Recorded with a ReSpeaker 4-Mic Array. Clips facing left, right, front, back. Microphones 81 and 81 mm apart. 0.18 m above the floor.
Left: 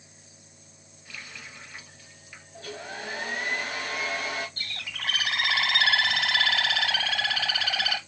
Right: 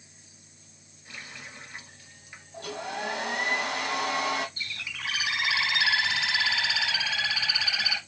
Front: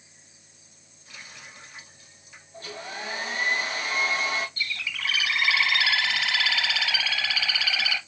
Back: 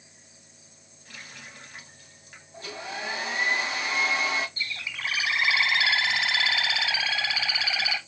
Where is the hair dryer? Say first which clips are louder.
Right 4 dB, back 1 dB; 110° right, 2.5 m.